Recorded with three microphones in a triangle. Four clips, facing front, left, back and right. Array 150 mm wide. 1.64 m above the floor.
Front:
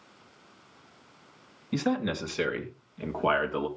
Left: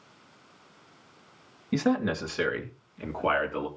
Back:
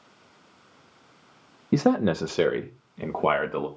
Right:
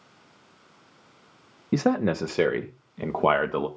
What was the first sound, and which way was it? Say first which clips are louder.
A man speaking: right 3 dB, back 7 dB; 150° right.